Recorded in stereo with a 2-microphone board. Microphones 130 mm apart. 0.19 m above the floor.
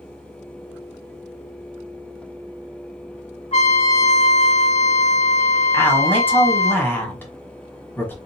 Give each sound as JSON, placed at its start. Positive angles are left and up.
{"t": 3.5, "sound": "a trumpet", "side_deg": 55, "distance_m": 2.0}
{"t": 5.7, "sound": "a man speaking", "side_deg": 15, "distance_m": 1.3}